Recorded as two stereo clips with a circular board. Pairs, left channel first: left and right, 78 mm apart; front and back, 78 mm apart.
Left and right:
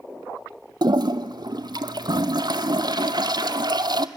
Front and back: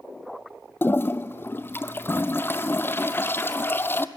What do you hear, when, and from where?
0.8 s a toilet flushing: 60° right, 0.7 m